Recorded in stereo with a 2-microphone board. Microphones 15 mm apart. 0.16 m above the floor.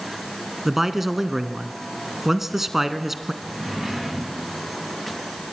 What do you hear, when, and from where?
0.7 s a man speaking: 20° right (ahead or behind), 1.2 m
3.4 s a drawer: 20° right (ahead or behind), 10 m